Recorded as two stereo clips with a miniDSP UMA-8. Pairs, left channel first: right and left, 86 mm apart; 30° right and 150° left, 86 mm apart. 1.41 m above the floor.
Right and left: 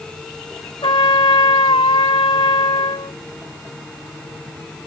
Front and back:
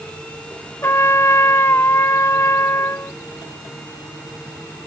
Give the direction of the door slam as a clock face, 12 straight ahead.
I don't hear a door slam.